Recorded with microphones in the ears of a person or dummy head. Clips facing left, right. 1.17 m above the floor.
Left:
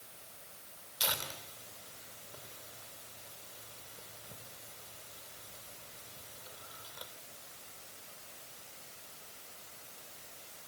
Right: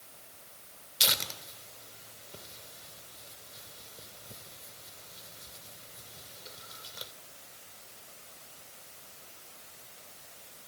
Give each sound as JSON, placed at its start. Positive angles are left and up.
{"t": 1.0, "sound": "tearing paper", "side_deg": -30, "distance_m": 2.5}